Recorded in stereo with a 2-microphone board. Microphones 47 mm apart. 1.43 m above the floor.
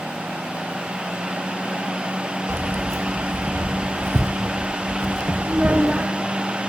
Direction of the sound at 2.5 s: 75° right (ahead or behind).